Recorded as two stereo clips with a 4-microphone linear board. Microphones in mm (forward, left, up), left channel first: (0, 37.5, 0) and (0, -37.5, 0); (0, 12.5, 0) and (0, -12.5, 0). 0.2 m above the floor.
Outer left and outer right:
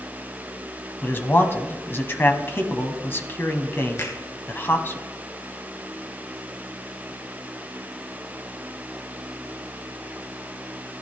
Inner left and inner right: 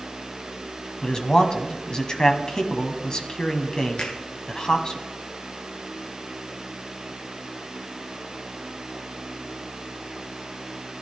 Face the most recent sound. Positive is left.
turn(degrees=40)  # may be behind; listen again after turning